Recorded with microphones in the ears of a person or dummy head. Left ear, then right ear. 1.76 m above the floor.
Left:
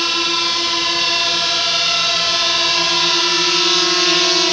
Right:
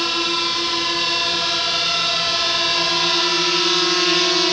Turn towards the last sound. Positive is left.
turn(degrees=15)  # may be behind; listen again after turning